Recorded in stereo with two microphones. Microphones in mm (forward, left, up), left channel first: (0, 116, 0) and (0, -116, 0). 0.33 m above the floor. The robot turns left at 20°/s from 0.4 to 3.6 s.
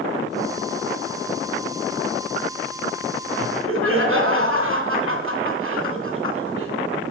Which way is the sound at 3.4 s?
65° right (ahead or behind).